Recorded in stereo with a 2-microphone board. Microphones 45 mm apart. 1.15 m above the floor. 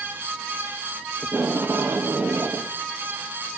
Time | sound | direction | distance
1.2 | tape being pulled | 55° right (ahead or behind) | 0.7 m